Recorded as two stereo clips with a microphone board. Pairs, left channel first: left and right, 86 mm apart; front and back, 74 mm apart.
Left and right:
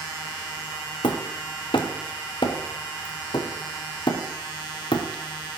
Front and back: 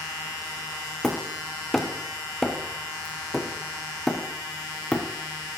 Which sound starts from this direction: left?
Hammering, at 1.0 s.